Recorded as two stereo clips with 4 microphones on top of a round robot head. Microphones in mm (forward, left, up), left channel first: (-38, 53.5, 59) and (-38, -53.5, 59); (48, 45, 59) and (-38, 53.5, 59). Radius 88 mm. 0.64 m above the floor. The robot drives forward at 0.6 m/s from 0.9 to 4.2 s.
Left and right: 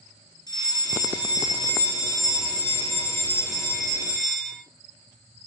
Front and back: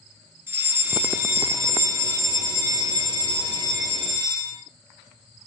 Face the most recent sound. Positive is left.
turn(degrees=150)